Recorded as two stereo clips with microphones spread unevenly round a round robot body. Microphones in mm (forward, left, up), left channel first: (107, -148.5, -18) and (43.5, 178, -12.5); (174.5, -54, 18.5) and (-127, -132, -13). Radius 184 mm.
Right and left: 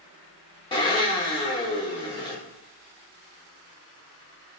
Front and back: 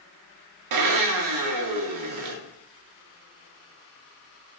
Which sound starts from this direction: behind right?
A blender, at 0.7 s.